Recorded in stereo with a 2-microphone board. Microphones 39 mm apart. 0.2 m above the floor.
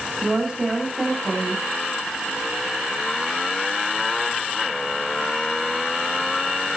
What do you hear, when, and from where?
0.2 s a woman speaking: 20° right (ahead or behind), 9.5 m